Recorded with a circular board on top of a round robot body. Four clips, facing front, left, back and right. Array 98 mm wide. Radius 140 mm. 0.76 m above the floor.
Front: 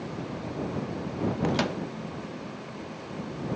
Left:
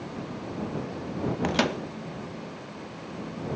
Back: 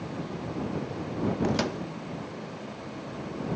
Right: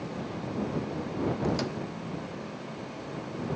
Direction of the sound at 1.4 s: 85° left.